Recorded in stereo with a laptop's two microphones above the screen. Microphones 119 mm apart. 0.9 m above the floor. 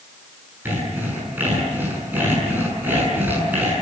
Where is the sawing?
15° right (ahead or behind), 7 m.